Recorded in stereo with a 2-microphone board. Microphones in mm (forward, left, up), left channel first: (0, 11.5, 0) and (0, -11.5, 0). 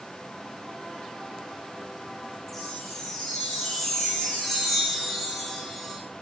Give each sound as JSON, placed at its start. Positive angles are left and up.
{"t": 2.5, "sound": "a chime", "side_deg": 10, "distance_m": 8.5}